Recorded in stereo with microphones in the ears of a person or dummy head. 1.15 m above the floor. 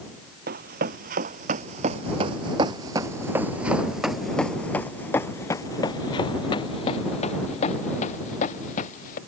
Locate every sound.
0.5 s running footsteps: 55° right (ahead or behind); by 9.2 s 45° left (ahead or behind)